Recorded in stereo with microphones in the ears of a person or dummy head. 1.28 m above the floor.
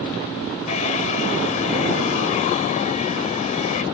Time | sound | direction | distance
0.7 | a hair dryer | 45° left (ahead or behind) | ?